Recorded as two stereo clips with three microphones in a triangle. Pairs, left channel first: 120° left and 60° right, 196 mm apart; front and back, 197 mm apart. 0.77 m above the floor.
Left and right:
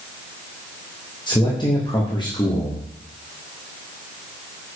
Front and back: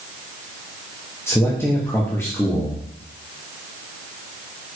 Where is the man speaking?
65° left, 1.3 m.